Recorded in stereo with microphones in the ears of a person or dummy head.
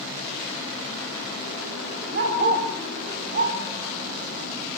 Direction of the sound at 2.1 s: 50° right (ahead or behind).